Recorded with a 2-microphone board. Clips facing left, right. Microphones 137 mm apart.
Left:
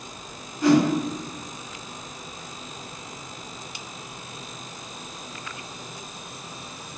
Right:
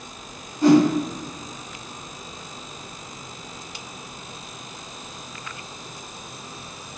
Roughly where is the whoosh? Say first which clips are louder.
Right 3 dB; right.